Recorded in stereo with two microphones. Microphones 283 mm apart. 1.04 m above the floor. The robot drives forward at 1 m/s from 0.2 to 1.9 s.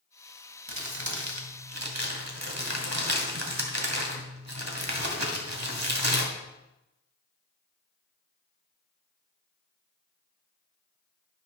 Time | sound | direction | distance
0.7 | crumpling | 75° right (ahead or behind) | 2 m